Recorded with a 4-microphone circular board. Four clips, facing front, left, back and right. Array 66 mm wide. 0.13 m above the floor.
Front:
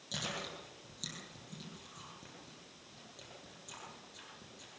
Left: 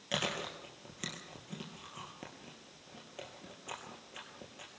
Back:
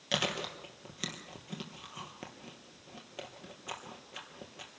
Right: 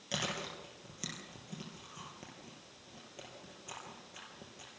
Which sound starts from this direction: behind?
Chewing, at 0.1 s.